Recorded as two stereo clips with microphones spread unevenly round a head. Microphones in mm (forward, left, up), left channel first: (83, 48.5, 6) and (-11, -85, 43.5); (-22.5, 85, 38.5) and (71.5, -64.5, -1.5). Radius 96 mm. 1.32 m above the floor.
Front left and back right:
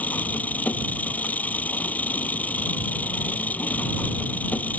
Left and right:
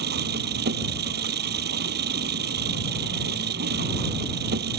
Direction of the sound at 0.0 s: 25° right.